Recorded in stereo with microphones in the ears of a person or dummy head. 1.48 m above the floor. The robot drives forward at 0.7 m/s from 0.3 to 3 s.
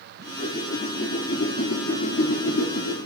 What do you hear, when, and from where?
0.2 s a whoosh: 40° left (ahead or behind), 3.5 m; by 3.0 s 70° left (ahead or behind), 2 m